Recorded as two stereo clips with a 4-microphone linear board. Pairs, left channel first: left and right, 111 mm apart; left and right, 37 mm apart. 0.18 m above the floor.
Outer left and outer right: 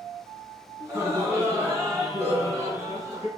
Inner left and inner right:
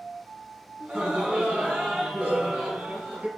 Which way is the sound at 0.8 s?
30° right (ahead or behind).